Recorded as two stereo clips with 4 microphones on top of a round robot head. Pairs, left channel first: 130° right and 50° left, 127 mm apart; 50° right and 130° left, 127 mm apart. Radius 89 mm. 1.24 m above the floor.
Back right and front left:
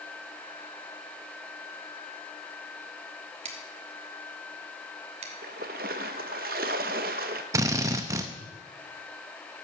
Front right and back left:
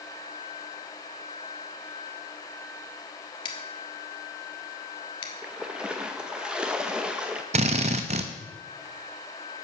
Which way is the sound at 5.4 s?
45° left.